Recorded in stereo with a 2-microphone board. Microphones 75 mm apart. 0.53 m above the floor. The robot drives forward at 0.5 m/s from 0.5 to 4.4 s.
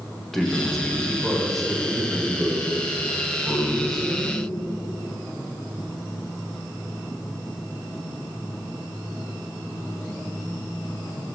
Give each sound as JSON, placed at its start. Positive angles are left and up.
{"t": 0.3, "sound": "a man speaking", "side_deg": 5, "distance_m": 1.3}